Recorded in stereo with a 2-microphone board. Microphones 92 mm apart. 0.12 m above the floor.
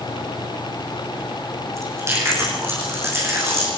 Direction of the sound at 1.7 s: 30° right (ahead or behind).